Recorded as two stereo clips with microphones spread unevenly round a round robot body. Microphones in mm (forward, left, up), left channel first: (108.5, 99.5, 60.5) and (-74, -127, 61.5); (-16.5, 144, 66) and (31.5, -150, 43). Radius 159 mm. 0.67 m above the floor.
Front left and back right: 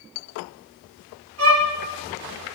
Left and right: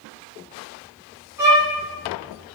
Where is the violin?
155° right, 0.8 m.